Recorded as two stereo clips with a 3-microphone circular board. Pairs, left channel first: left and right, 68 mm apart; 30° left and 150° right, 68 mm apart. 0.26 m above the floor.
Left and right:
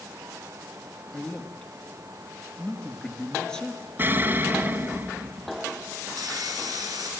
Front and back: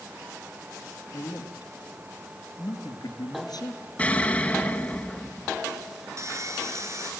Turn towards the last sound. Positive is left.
turn(degrees=-110)